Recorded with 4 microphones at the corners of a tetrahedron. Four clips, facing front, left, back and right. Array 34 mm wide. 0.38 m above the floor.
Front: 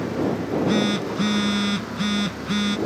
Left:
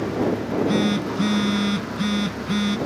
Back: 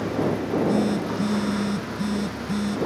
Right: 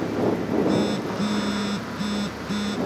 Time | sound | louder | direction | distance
0.4 | a phone buzzing | left 1 dB, front 2 dB | 25° left | ?